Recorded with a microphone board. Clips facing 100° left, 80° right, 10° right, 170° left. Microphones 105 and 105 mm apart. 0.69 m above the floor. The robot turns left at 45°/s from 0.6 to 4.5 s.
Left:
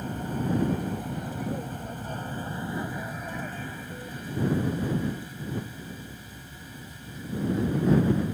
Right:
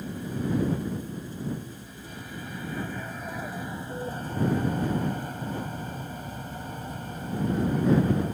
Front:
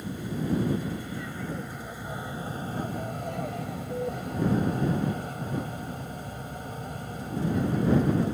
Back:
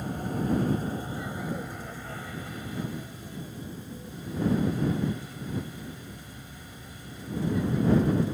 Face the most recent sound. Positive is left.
turn(degrees=-45)